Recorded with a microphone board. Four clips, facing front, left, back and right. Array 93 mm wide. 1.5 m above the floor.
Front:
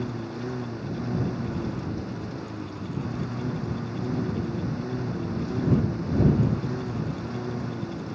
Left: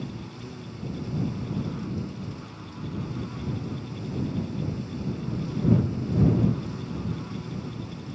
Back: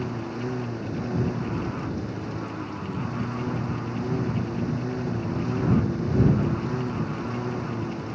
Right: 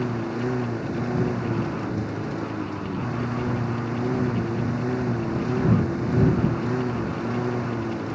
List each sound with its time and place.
0.0 s a lawn mower: 95° right